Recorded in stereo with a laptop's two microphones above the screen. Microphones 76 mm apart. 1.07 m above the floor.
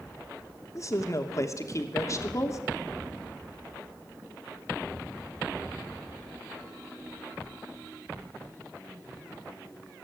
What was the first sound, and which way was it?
A woman speaking, 40° left (ahead or behind).